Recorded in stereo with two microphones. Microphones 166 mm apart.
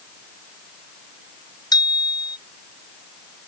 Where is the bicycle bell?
25° left (ahead or behind).